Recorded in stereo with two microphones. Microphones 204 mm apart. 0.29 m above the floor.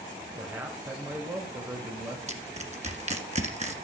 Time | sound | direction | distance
0.4 | a man speaking | 15° right (ahead or behind) | 1.4 m
2.3 | crushing | 35° right (ahead or behind) | 1.5 m